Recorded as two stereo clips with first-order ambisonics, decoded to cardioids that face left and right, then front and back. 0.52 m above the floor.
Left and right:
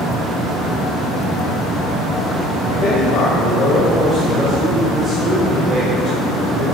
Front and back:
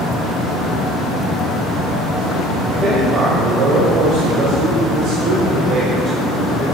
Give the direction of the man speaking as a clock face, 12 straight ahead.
8 o'clock.